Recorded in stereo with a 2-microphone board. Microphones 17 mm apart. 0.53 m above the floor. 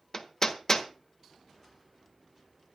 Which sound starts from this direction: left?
Hammering, at 0.1 s.